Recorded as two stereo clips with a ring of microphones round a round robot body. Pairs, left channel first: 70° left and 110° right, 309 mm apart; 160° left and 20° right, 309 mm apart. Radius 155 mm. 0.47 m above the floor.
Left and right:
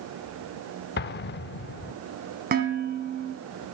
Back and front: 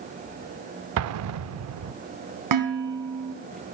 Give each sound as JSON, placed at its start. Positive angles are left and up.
{"t": 1.0, "sound": "an explosion", "azimuth_deg": 15, "distance_m": 0.5}
{"t": 2.5, "sound": "dishes clattering", "azimuth_deg": -50, "distance_m": 3.0}